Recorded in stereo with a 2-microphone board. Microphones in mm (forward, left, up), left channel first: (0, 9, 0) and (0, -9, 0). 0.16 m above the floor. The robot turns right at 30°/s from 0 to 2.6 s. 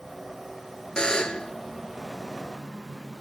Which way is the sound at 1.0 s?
65° left (ahead or behind).